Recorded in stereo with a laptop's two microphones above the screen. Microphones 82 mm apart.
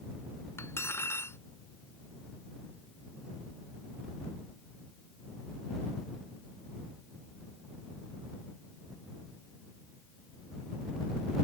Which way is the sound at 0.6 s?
35° left (ahead or behind).